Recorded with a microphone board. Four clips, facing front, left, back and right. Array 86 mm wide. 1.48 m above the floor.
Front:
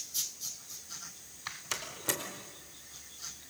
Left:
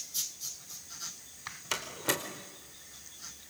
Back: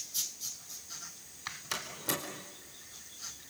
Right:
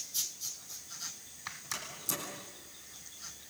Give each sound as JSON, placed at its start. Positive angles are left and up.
{"t": 1.7, "sound": "a door slam", "azimuth_deg": 85, "distance_m": 4.5}